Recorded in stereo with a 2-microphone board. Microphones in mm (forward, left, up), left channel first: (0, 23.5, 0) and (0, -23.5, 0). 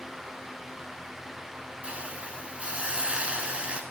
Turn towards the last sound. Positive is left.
turn(degrees=-25)  # may be behind; listen again after turning